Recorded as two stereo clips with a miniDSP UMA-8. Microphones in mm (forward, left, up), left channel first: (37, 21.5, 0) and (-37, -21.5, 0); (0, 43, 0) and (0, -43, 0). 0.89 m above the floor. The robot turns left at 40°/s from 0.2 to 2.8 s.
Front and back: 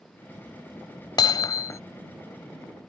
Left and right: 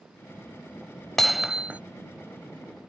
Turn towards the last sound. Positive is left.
turn(degrees=-60)